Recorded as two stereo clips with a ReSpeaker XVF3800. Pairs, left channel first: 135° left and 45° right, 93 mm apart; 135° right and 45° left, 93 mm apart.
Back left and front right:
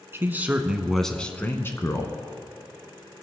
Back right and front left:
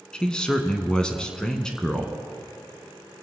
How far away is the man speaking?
About 1.1 m.